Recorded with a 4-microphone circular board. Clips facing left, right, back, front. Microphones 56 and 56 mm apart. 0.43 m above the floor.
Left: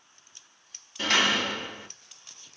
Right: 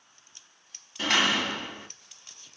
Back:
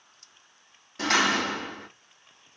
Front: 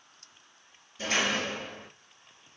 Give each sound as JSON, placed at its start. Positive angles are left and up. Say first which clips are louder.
{"t": 1.0, "sound": "a door slam", "louder": "even, back 5 dB", "azimuth_deg": -175, "distance_m": 2.5}